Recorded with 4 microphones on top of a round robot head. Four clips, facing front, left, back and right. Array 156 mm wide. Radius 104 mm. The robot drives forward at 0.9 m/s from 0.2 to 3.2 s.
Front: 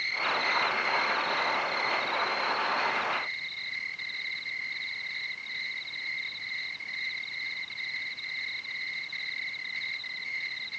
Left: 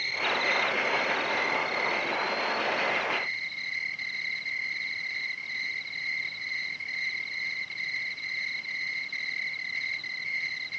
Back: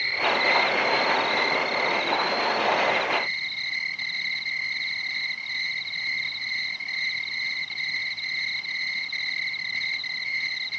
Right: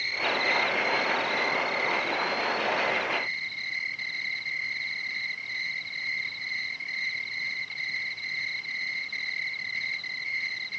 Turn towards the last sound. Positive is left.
turn(degrees=175)